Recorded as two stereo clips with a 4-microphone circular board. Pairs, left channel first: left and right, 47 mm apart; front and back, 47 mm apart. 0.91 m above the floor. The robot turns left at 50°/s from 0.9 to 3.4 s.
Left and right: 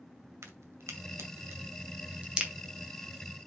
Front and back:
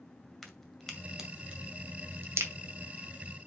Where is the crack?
85° right, 2 m; by 2.5 s 165° right, 2 m.